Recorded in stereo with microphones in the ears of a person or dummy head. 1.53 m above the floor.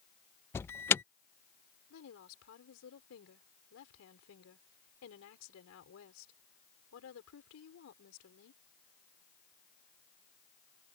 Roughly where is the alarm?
Centre.